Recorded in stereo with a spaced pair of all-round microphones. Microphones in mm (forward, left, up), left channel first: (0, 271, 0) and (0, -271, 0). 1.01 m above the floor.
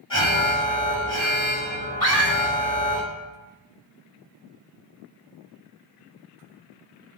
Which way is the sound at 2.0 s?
80° left.